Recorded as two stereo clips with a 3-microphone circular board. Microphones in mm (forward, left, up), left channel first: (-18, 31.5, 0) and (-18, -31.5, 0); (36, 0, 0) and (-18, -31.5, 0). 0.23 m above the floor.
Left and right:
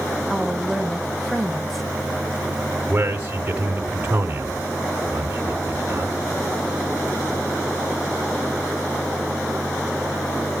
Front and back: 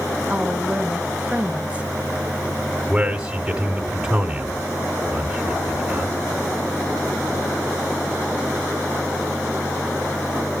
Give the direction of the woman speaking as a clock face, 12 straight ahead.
6 o'clock.